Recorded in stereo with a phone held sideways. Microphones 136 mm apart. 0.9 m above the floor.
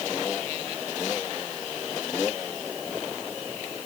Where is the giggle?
No giggle in this recording.